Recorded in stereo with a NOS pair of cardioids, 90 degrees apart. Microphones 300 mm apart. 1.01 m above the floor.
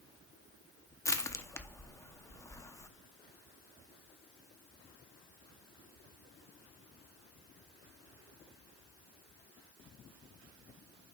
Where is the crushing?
10° left, 0.9 m.